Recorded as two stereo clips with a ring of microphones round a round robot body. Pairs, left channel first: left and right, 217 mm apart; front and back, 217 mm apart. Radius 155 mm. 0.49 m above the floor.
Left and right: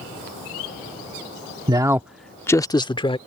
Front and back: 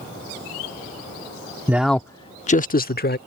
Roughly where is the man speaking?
Behind right.